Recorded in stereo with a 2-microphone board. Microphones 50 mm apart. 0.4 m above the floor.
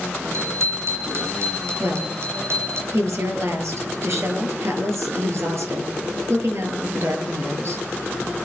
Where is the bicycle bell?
65° right (ahead or behind), 5 m.